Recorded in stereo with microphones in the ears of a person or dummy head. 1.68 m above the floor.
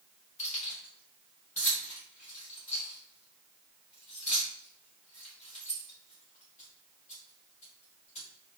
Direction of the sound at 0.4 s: 40° left (ahead or behind).